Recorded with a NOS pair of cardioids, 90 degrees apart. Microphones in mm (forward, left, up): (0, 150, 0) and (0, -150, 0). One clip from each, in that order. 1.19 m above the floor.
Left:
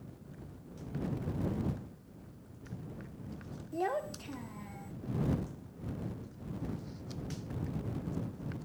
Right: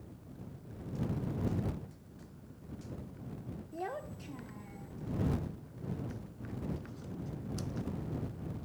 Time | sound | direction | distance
3.7 | a child speaking | 25° left | ?